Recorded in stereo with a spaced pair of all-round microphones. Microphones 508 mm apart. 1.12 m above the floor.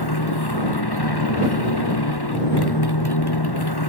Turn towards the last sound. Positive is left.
turn(degrees=50)  # may be behind; listen again after turning